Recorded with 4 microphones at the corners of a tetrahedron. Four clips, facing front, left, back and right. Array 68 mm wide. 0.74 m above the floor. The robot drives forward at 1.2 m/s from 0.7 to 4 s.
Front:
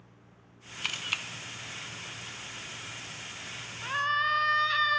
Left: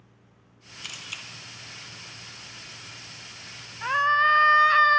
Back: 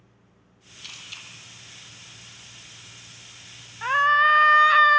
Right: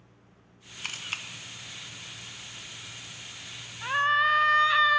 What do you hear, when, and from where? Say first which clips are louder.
0.8 s a camera shutter: right 3 dB, front 8 dB; 25° right, 2.0 m; by 1.2 s 35° right, 1.5 m
3.8 s a scream: left 3 dB, back 10 dB; 145° left, 1.0 m; by 5.0 s 155° left, 1.2 m